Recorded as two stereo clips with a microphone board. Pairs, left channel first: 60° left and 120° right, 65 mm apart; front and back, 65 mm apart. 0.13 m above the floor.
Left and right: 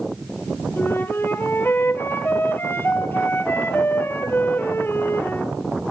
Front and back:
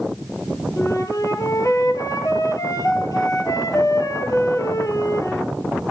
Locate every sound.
0.8 s a flute: 10° left, 2 m